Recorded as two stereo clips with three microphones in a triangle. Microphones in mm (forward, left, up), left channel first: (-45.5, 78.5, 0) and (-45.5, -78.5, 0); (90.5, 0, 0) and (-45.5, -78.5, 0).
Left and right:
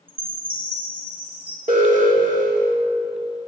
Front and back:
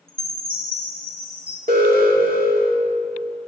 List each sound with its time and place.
0.1 s a chime: 145° right, 2 m
1.7 s an alarm: 125° right, 2 m